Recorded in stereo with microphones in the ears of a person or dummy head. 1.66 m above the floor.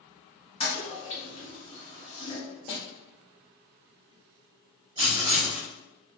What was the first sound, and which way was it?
A toilet flushing, 25° left (ahead or behind).